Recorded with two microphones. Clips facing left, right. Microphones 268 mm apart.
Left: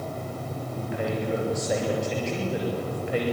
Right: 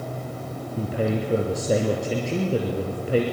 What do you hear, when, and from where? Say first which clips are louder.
0.8 s a man speaking: right 5 dB; 40° right (ahead or behind), 2.5 m